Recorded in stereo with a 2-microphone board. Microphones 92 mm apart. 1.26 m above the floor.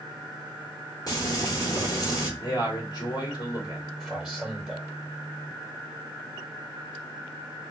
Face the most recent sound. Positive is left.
turn(degrees=0)  # may be behind; listen again after turning